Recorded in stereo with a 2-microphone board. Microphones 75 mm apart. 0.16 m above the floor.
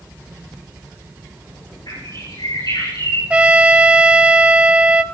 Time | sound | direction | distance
1.9 | a bird | 70° left (ahead or behind) | 9.5 m
3.3 | a trumpet | 15° right (ahead or behind) | 0.5 m